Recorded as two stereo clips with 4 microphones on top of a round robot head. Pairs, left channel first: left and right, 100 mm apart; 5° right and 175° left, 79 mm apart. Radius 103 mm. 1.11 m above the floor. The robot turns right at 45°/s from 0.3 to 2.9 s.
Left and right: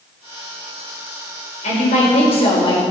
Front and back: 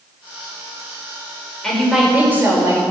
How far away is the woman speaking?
About 5 m.